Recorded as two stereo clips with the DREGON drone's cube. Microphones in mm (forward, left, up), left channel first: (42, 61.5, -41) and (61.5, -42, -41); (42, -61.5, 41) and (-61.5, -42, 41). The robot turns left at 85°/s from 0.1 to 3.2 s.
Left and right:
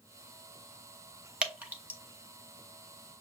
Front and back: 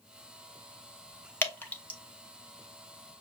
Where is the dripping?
25° right, 1.1 m; by 2.0 s 75° right, 1.1 m.